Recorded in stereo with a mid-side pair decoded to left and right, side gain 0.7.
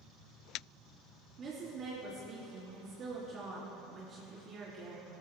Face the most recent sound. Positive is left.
turn(degrees=-35)